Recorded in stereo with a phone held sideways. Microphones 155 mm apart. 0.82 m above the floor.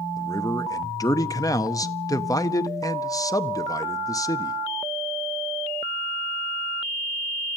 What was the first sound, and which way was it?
A man speaking, 20° left (ahead or behind).